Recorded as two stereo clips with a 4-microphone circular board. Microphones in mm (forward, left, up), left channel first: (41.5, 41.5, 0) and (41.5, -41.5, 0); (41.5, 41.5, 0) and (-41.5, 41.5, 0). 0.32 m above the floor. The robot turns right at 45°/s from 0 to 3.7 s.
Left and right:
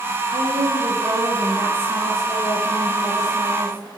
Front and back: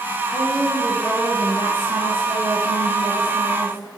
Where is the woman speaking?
95° right, 6 m; by 4.0 s 60° left, 6 m.